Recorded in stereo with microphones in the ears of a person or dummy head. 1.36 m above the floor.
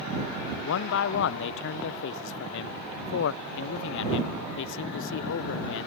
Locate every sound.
0.6 s a man speaking: 70° left (ahead or behind)